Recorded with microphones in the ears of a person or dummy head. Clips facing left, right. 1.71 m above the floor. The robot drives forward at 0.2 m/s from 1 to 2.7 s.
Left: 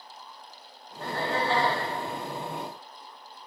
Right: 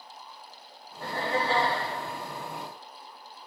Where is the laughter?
25° right (ahead or behind), 1.4 m; by 1.8 s 20° right (ahead or behind), 1.5 m.